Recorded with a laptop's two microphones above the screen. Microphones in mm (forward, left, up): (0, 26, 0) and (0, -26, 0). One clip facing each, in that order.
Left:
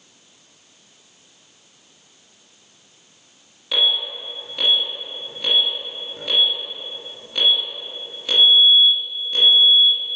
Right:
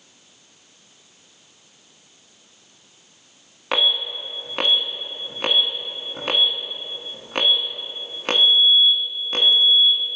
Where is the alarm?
55° right (ahead or behind), 1.4 m.